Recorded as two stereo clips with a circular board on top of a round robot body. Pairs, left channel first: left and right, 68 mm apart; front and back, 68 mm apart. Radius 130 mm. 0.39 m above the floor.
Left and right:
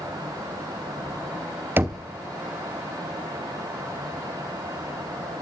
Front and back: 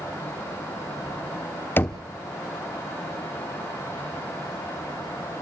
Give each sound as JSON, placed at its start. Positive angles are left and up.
{"t": 1.8, "sound": "knocking", "azimuth_deg": -45, "distance_m": 1.2}